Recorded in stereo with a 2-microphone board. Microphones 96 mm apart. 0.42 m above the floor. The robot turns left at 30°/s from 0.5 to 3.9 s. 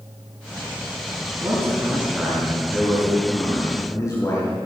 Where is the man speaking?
145° right, 5 m; by 4.5 s 140° left, 5 m.